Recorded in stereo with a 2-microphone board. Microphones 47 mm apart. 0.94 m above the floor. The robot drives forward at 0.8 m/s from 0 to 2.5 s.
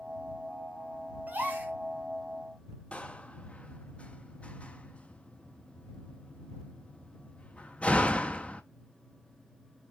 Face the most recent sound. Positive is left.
turn(degrees=25)  # may be behind; listen again after turning